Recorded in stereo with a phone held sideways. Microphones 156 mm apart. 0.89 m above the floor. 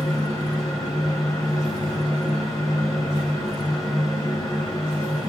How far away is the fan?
About 3 m.